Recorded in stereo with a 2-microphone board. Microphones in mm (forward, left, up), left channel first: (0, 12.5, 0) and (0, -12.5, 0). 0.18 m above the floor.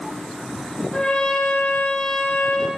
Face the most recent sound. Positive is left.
turn(degrees=45)  # may be behind; listen again after turning